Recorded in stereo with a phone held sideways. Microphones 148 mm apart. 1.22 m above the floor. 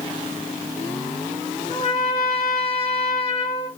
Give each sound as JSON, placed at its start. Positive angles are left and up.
{"t": 1.7, "sound": "a trumpet", "side_deg": 50, "distance_m": 0.8}